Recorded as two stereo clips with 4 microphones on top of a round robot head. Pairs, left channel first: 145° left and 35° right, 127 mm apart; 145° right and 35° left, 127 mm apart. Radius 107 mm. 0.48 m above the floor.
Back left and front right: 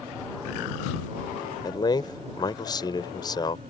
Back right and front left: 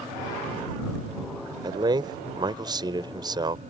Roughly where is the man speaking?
Left.